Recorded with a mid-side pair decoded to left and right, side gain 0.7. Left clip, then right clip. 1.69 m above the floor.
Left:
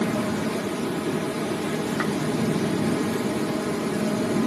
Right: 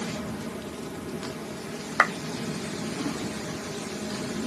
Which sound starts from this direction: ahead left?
A fan, at 0.0 s.